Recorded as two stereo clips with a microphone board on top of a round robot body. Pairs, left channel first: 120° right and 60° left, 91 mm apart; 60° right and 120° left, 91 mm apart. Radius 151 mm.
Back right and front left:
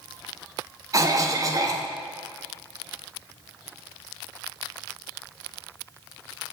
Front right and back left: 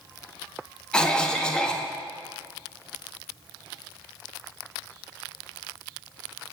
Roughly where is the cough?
Ahead.